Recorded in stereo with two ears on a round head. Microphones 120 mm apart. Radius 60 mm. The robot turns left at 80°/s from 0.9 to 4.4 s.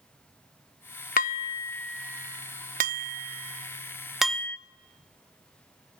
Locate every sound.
1.2 s dishes clattering: 60° left (ahead or behind), 0.5 m; by 4.6 s 15° left (ahead or behind), 0.5 m